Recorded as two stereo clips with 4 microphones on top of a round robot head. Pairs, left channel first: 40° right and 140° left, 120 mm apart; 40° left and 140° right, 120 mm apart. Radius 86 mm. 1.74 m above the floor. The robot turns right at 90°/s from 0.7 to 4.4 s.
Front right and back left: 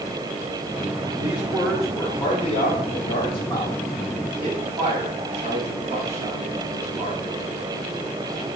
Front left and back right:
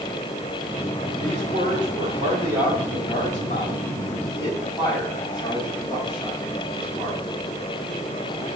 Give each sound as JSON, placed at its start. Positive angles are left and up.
{"t": 1.2, "sound": "a man speaking", "azimuth_deg": 170, "distance_m": 4.0}